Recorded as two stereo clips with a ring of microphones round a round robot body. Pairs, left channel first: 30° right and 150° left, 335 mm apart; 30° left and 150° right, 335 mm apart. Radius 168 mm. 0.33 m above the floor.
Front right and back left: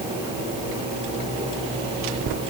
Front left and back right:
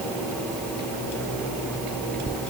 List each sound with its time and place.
Only background noise.